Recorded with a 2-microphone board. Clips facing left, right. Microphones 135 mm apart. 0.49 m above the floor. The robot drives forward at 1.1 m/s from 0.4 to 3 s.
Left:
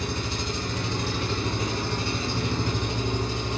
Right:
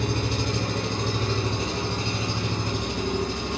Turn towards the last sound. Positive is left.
turn(degrees=-15)  # may be behind; listen again after turning